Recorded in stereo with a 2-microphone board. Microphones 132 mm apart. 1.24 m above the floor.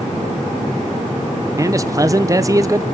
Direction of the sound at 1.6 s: 25° right (ahead or behind).